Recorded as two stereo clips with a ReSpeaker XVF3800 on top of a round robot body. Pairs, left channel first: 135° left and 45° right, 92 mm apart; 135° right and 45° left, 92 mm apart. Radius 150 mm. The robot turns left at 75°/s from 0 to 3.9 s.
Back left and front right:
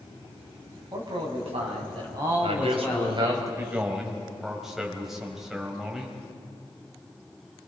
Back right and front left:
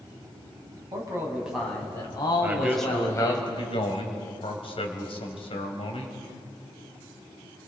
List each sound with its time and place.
0.9 s a man speaking: 5° left, 5 m; by 3.4 s 175° left, 5 m
2.4 s a man speaking: 20° right, 3.5 m; by 6.2 s 130° right, 3.5 m